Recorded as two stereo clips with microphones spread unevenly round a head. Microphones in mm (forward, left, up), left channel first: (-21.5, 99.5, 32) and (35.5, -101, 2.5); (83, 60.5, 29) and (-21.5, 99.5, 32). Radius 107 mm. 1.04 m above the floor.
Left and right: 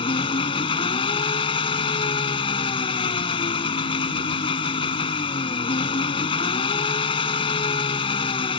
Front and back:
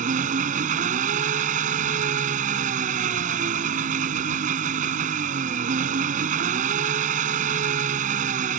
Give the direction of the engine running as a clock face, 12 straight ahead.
6 o'clock.